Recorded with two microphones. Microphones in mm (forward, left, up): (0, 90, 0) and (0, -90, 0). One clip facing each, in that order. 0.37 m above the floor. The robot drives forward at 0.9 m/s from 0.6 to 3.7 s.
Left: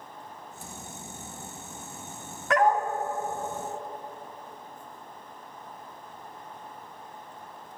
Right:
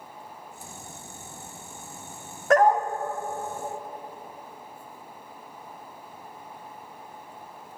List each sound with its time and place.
2.5 s a dog barking: 45° right (ahead or behind), 0.8 m; by 2.9 s 35° right (ahead or behind), 1.0 m